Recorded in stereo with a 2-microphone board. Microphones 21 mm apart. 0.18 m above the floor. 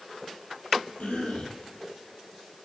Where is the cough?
75° left (ahead or behind), 6 m.